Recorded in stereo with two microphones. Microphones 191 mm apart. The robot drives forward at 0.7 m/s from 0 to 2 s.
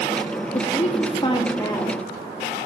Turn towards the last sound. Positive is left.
turn(degrees=15)  # may be behind; listen again after turning